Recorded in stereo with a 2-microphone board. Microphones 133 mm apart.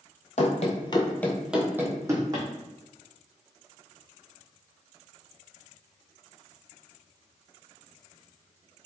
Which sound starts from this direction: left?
Running footsteps, at 0.4 s.